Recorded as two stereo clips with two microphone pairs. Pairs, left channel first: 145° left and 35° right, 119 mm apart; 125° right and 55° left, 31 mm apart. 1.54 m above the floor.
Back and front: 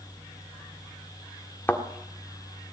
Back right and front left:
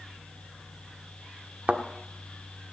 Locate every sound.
1.7 s a thud: 75° left, 1.5 m